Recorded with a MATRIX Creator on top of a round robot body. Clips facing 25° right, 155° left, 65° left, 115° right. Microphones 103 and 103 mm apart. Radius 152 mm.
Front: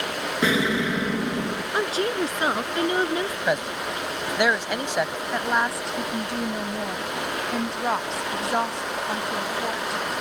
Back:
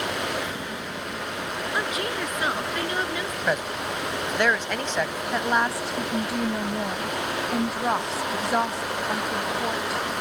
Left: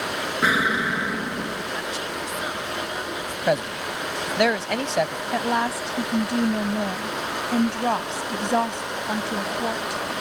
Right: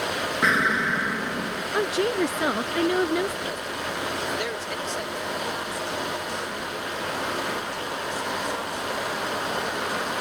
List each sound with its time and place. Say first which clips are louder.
0.4 s an explosion: front 10 dB, left 1 dB; 20° right
1.7 s a woman speaking: front 5 dB, right 7 dB; 85° right
3.5 s a man speaking: back 1 dB, left 7 dB; 55° left
5.3 s a woman speaking: back 1 dB, left 7 dB; 70° left